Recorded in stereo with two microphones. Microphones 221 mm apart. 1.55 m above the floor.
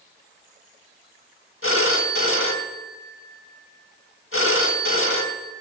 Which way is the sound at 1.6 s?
65° left (ahead or behind).